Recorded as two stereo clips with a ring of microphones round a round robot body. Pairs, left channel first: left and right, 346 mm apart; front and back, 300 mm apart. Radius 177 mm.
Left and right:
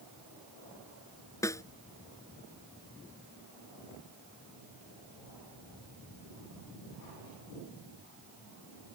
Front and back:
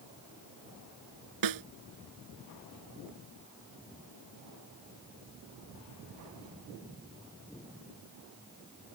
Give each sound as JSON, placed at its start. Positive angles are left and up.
{"t": 1.4, "sound": "a snare drum", "azimuth_deg": 170}